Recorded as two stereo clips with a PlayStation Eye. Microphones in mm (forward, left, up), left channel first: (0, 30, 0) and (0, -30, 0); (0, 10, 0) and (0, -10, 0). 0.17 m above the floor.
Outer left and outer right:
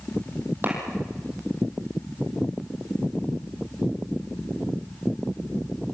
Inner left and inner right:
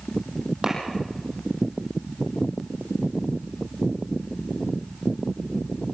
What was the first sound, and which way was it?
A clap, 35° right (ahead or behind).